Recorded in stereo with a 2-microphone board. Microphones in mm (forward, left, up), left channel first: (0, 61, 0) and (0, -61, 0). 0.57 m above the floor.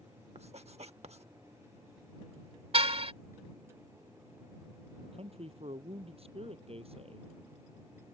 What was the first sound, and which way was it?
Writing, 60° right (ahead or behind).